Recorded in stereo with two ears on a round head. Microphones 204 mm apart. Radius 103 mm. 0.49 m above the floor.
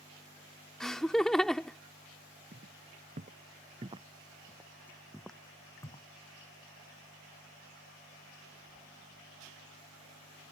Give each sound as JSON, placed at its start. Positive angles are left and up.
{"t": 0.8, "sound": "laughter", "side_deg": 0}
{"t": 2.5, "sound": "footsteps", "side_deg": -40}